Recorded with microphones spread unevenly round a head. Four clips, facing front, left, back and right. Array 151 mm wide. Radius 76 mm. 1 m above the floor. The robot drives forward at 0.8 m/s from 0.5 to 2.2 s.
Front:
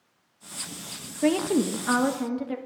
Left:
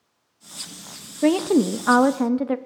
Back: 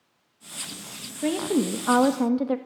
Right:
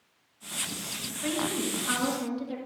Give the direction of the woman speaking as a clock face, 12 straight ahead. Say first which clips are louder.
Left 13 dB, front 1 dB; 9 o'clock.